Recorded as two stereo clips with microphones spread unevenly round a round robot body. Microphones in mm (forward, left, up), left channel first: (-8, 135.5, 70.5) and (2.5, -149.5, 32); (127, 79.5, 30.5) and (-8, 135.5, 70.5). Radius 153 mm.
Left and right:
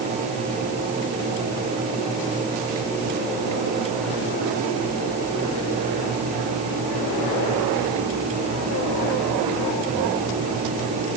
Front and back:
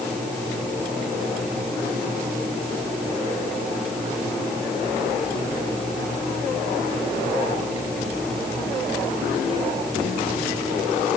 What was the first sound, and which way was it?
Only background noise.